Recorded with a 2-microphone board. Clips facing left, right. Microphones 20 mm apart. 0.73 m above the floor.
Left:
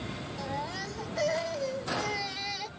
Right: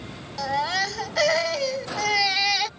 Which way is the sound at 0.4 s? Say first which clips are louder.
Right 13 dB; 65° right (ahead or behind).